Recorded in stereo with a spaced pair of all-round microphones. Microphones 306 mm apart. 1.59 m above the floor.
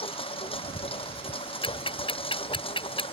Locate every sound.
0.0 s a lawn mower: 15° left (ahead or behind)
1.6 s ticking: 15° left (ahead or behind)